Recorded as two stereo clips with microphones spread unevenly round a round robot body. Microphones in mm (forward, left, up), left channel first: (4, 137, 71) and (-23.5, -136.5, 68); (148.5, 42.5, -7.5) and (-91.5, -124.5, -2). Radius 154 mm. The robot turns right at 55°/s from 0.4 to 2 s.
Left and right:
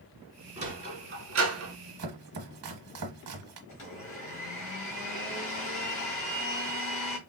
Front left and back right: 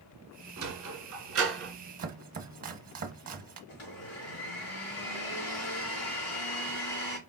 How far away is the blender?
About 2.5 m.